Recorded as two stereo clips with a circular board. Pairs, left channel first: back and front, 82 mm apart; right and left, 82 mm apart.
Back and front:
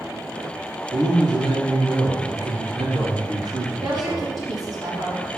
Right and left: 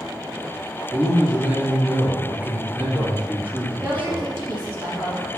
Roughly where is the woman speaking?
Ahead left.